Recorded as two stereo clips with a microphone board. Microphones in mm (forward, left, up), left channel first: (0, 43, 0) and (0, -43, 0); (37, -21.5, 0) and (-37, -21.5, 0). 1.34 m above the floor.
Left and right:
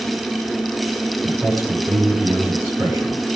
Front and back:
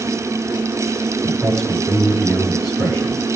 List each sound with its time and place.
1.2 s a man speaking: 30° right, 5.5 m